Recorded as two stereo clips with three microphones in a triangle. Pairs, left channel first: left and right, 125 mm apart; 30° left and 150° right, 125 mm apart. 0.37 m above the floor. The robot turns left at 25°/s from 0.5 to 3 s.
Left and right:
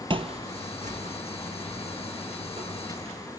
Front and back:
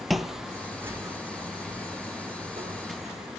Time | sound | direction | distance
0.1 | footsteps | 60° right | 0.5 m